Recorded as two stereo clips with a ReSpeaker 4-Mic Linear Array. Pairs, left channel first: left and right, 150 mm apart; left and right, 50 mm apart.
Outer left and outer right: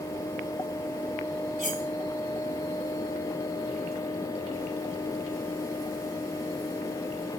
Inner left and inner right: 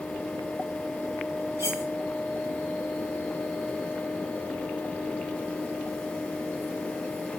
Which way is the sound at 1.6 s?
65° right (ahead or behind).